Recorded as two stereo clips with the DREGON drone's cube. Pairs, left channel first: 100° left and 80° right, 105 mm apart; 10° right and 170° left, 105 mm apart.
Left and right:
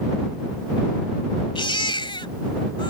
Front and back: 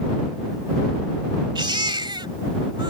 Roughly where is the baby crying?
Behind left.